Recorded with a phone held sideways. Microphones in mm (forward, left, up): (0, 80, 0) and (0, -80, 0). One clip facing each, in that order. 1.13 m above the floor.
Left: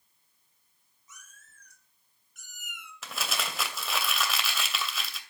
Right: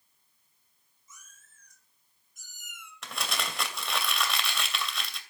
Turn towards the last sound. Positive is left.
turn(degrees=0)  # may be behind; listen again after turning